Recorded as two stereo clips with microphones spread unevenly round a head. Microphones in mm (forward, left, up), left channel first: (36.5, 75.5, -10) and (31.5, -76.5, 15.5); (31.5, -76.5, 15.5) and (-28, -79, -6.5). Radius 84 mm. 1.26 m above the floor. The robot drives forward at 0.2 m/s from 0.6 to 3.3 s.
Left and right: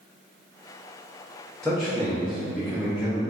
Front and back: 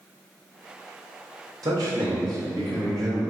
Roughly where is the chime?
No chime in this recording.